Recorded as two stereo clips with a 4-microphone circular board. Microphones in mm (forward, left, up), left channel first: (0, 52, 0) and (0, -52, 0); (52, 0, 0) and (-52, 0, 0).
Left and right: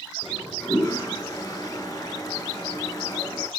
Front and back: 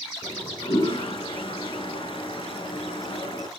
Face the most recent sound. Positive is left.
turn(degrees=35)